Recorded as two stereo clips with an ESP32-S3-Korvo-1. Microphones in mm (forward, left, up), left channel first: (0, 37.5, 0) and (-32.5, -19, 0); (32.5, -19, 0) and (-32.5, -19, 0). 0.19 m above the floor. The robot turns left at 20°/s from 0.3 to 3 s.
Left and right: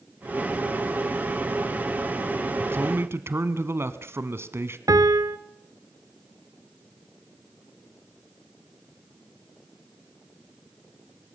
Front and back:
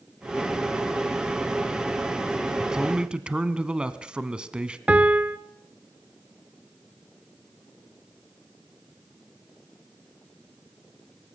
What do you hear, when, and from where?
2.6 s a man speaking: 105° right, 1.3 m; by 4.8 s 115° right, 1.3 m
4.9 s a piano: 110° right, 0.8 m